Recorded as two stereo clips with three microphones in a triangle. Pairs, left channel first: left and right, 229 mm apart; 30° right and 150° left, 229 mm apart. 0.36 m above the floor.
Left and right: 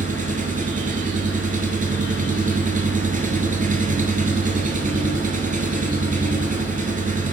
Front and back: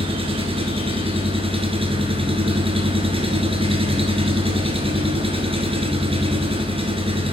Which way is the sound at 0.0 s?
145° right.